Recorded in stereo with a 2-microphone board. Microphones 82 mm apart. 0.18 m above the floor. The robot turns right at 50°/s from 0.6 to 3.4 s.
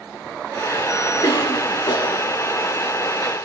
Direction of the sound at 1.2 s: 75° left.